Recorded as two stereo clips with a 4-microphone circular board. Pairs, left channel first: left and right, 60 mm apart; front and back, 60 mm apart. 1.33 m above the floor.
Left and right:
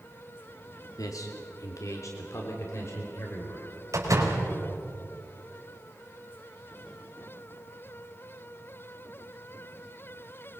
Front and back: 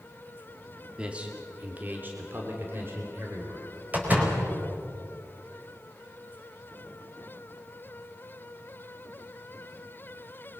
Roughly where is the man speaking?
Left.